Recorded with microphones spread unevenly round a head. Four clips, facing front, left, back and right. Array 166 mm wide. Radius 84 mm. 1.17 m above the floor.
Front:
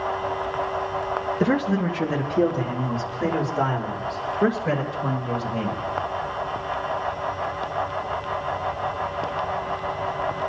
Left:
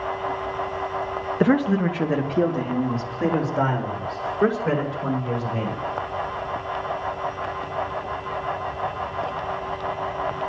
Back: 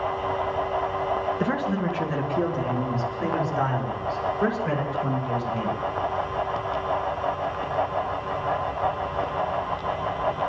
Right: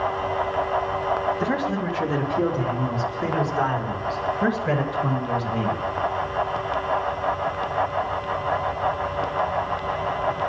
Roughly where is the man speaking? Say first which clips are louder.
Left 5 dB, front 3 dB; left.